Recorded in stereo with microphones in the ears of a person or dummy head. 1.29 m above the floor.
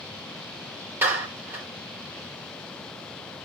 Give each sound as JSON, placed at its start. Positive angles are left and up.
{"t": 1.0, "sound": "a clap", "side_deg": -10, "distance_m": 5.0}